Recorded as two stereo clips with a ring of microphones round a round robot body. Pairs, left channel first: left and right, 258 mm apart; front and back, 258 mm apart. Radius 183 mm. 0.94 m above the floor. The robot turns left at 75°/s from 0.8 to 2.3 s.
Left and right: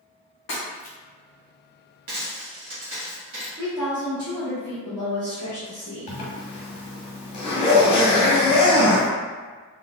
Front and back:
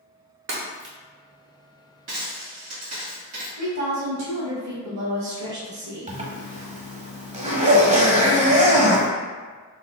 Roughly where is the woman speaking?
Behind.